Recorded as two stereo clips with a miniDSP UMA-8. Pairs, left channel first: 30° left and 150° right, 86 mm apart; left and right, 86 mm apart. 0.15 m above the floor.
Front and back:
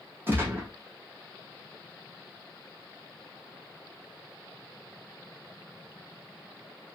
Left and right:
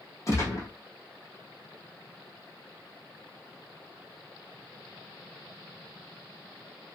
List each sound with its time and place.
0.3 s a gunshot: 145° left, 1.7 m